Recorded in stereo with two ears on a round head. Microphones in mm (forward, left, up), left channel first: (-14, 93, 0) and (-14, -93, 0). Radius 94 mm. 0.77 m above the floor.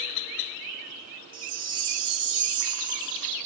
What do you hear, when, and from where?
1.3 s a chime: 25° right (ahead or behind), 2 m